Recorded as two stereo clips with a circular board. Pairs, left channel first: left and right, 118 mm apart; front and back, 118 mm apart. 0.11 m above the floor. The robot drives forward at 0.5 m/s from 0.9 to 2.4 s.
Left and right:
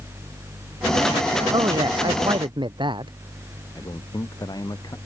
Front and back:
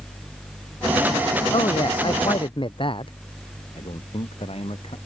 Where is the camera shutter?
No camera shutter in this recording.